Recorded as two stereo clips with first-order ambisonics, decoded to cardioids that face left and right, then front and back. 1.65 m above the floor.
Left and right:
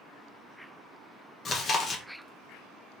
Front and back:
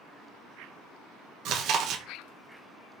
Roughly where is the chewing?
Behind left.